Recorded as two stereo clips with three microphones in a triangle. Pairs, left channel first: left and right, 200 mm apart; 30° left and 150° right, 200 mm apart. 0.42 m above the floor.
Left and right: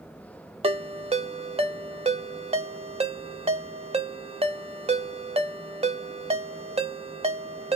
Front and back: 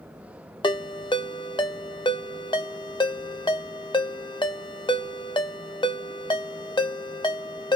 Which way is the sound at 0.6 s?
35° right.